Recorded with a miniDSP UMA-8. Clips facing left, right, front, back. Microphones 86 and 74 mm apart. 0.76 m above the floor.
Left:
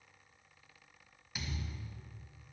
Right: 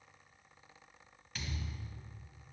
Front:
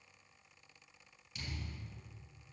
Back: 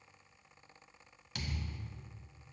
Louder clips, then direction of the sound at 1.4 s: Left 1 dB, back 4 dB; 170° left.